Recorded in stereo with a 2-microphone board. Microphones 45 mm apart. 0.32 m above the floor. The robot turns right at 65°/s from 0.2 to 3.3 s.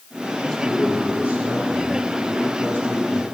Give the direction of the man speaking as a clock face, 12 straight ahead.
6 o'clock.